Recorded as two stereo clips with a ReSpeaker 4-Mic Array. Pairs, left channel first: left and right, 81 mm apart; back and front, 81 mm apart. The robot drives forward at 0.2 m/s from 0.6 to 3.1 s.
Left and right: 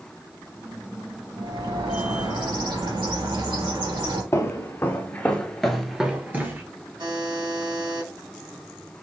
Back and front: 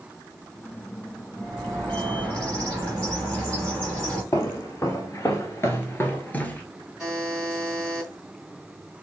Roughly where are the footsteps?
Behind left.